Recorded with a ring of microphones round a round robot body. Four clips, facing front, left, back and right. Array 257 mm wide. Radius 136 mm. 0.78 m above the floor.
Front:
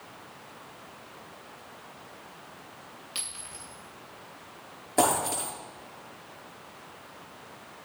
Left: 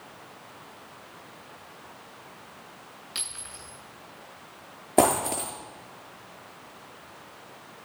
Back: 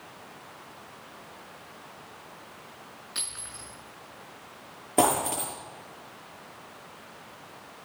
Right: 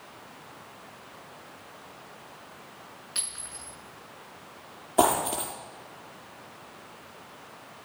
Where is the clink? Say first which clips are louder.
Left 1 dB, back 1 dB; 35° left, 7 m.